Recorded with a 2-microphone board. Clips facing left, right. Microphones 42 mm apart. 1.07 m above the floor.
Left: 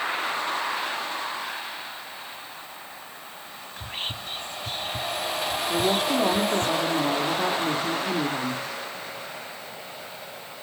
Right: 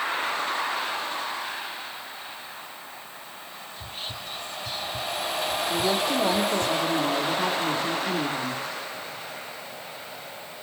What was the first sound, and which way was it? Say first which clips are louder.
Whispering: left 4 dB; 40° left (ahead or behind).